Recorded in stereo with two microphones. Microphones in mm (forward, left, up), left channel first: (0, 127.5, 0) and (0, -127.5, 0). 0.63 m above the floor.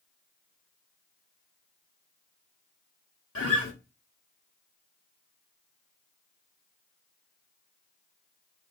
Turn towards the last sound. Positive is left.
turn(degrees=60)  # may be behind; listen again after turning